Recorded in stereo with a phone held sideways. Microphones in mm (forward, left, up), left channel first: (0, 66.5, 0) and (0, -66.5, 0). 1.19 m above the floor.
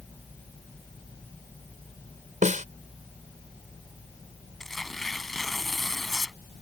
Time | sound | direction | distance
2.4 | a snare drum | 70° right (ahead or behind) | ?
4.6 | tearing paper | centre (ahead or behind) | ?